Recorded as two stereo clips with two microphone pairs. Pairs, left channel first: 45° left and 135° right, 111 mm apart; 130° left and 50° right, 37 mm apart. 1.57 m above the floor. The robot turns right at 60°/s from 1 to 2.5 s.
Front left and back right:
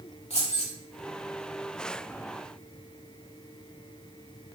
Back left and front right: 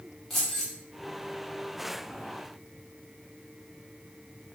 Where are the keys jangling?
50° left, 3.5 m.